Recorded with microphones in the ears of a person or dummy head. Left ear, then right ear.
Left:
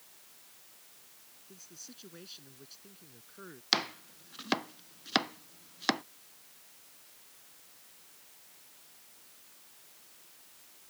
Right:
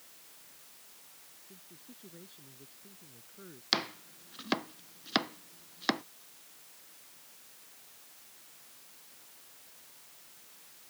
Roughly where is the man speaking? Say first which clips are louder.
Left 8 dB; left.